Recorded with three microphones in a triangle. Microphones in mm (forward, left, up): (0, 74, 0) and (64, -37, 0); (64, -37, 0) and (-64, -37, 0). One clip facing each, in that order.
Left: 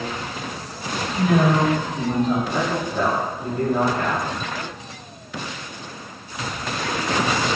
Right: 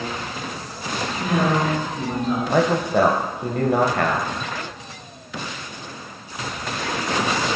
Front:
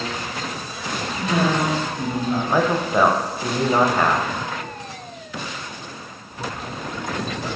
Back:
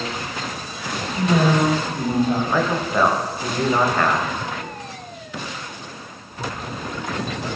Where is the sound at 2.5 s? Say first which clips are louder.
Right 5 dB, front 2 dB; 80° right, 0.6 m.